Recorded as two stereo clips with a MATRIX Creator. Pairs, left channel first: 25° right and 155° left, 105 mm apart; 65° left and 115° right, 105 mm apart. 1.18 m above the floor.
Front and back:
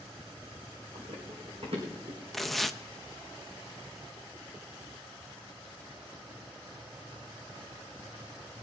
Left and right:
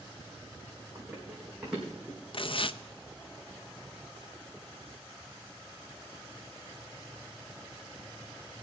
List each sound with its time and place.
0.9 s running footsteps: 170° left, 5.5 m; by 2.2 s 160° left, 4 m
2.3 s tearing paper: 65° left, 0.5 m